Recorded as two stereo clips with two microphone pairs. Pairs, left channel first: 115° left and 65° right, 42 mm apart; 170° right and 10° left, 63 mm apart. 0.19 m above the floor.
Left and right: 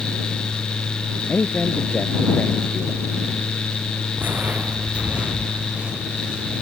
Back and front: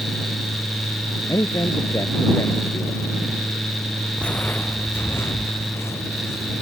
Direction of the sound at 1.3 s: 170° left.